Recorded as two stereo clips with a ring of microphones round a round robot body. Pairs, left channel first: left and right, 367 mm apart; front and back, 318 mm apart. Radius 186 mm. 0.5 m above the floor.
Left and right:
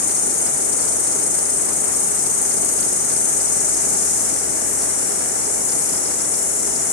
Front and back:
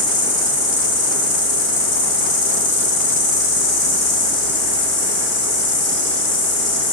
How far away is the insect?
About 1.0 m.